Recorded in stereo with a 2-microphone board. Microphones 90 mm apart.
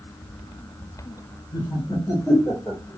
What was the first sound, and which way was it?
Laughter, 50° left (ahead or behind).